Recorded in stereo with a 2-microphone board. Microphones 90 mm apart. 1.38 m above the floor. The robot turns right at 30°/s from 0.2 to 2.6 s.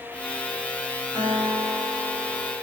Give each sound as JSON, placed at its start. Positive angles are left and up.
{"t": 1.1, "sound": "a guitar", "azimuth_deg": -135, "distance_m": 7.0}